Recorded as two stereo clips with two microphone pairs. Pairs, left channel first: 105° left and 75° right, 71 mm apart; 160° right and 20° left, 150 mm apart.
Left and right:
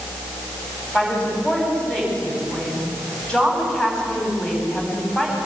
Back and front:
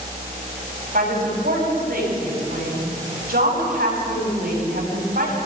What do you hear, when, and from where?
0.9 s a woman speaking: 30° left, 9 m